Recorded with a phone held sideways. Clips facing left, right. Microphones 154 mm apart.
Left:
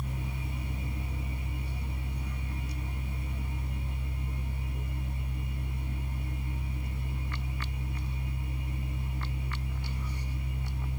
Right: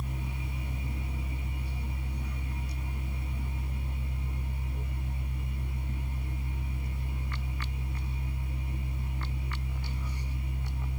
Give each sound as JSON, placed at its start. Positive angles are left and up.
{"t": 0.0, "sound": "a fan", "side_deg": 10, "distance_m": 1.4}